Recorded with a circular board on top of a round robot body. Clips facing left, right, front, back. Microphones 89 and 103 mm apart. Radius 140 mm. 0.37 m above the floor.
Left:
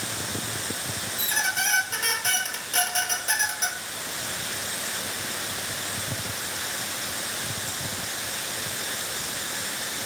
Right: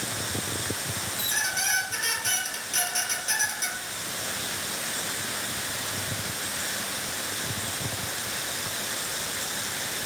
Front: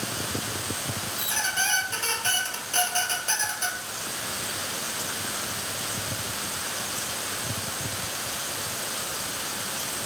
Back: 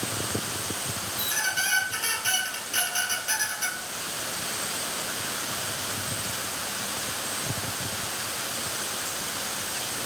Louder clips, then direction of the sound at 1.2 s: Left 5 dB, even; 50° left.